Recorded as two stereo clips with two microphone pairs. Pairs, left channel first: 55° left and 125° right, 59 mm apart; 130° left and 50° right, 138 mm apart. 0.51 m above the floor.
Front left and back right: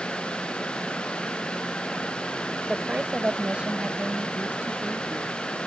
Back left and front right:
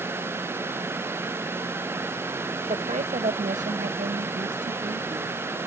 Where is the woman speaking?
50° right; by 5.4 s 65° right.